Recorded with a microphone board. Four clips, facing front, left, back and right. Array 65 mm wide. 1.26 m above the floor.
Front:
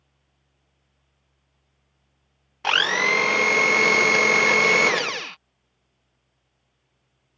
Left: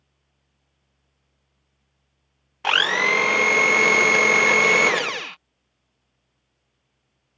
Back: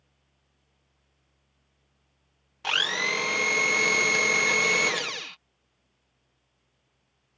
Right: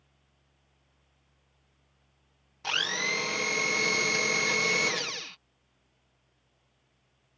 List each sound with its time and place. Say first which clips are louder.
2.6 s a blender: left 11 dB, front 7 dB; 55° left